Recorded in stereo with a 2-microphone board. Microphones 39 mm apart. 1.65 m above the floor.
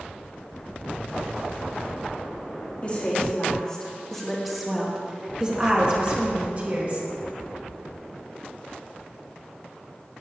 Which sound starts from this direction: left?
A woman speaking, at 2.8 s.